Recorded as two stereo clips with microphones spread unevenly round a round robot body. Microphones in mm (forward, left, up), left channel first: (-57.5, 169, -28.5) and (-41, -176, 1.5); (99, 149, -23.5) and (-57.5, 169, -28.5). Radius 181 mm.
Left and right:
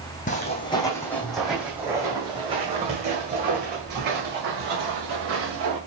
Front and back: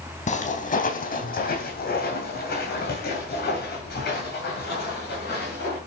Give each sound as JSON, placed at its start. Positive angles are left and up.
{"t": 0.3, "sound": "footsteps", "azimuth_deg": 25, "distance_m": 1.7}